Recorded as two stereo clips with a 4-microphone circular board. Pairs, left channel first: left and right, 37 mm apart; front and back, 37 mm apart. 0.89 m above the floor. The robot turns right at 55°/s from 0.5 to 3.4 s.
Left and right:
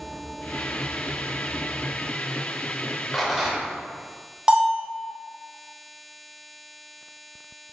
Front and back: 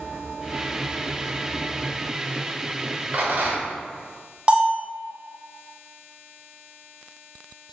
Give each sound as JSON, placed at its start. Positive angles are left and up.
{"t": 3.1, "sound": "a rattle", "azimuth_deg": 180, "distance_m": 0.9}
{"t": 4.5, "sound": "a bell", "azimuth_deg": -135, "distance_m": 0.7}